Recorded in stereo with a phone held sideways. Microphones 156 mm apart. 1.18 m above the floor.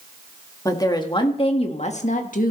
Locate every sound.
0.7 s a woman speaking: 20° left (ahead or behind), 1.8 m; by 2.5 s 60° left (ahead or behind), 1.5 m